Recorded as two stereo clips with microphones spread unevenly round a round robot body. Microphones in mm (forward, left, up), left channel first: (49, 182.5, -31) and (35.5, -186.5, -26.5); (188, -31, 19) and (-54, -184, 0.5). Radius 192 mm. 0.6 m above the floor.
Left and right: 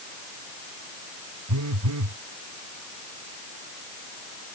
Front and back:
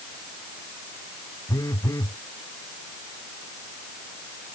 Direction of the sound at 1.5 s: 45° right.